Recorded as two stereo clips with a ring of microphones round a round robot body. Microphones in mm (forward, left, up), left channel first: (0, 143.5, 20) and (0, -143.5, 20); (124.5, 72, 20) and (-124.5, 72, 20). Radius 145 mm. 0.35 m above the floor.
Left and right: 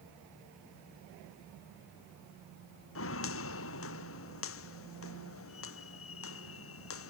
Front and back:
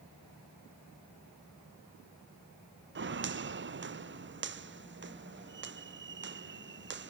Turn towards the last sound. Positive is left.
turn(degrees=135)